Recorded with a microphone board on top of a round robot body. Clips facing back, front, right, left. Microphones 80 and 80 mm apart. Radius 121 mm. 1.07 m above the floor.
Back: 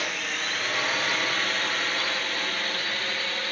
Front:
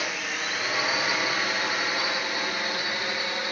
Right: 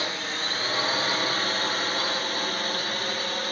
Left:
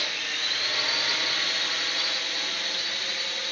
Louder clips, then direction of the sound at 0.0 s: Even, right 3 dB; 80° right.